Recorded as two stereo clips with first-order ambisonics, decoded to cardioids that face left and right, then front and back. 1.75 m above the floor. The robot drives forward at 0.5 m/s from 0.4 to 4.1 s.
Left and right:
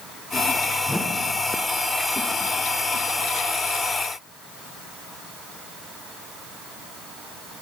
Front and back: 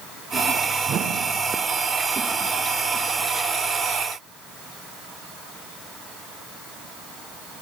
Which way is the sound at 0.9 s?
170° left.